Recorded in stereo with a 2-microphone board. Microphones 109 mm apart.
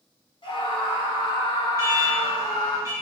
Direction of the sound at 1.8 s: 30° right (ahead or behind).